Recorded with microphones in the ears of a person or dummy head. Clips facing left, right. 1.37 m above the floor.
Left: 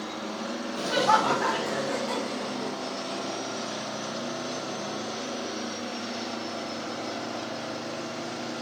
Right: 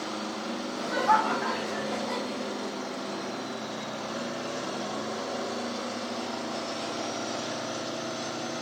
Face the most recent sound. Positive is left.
turn(degrees=65)  # may be behind; listen again after turning